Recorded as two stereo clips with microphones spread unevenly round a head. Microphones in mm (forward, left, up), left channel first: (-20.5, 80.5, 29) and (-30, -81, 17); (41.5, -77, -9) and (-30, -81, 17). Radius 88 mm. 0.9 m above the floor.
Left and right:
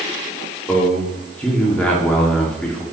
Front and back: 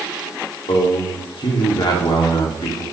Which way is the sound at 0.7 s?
5° left.